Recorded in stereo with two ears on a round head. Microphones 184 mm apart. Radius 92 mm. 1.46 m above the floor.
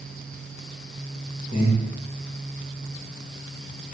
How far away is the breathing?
About 0.5 m.